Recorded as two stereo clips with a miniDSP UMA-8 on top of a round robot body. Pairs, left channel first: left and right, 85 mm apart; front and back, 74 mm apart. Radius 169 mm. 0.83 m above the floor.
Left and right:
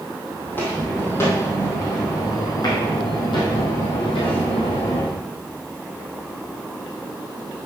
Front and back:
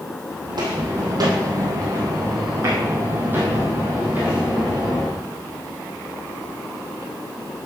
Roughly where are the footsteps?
Behind.